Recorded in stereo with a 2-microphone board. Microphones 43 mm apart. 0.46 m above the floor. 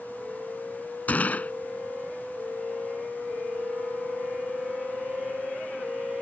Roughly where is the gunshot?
Left.